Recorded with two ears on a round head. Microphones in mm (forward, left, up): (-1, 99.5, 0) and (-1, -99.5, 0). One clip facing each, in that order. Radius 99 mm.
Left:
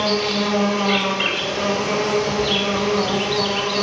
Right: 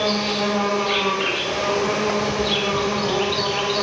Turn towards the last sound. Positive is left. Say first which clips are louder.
# left 2 dB
turn(degrees=75)  # may be behind; listen again after turning